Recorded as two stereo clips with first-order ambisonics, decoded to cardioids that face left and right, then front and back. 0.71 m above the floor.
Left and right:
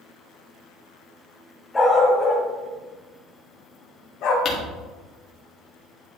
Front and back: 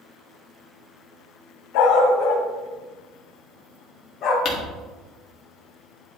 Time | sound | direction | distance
1.7 | a dog barking | 15° left | 2.0 m
4.5 | crumpling | 45° left | 1.7 m